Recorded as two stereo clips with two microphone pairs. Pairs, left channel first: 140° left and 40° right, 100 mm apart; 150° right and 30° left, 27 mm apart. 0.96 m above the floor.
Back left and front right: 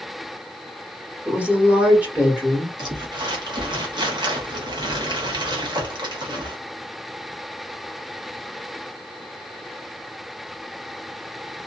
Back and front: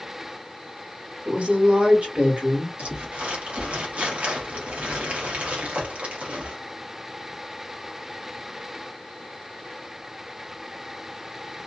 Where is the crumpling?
Straight ahead, 1.0 m.